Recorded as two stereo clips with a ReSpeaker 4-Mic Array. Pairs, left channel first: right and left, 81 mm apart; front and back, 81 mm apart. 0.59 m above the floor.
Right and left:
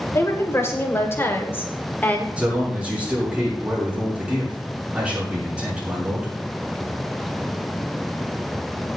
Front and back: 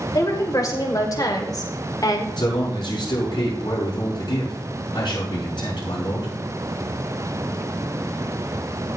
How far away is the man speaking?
About 6.5 m.